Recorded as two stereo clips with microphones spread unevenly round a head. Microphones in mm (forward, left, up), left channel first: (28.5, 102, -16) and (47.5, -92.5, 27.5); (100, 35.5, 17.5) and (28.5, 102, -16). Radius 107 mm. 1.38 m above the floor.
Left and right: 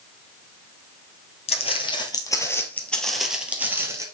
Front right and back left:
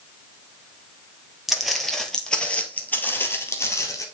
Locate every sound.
1.5 s footsteps: 35° left, 2 m; by 4.0 s 25° right, 2 m